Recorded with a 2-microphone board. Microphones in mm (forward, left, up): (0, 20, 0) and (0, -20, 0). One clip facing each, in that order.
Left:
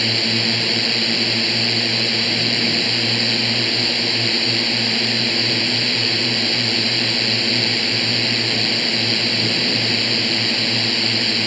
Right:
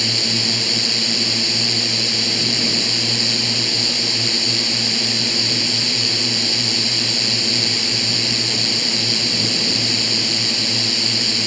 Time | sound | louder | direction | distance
0.0 | a drone | left 2 dB | 20° left (ahead or behind) | ?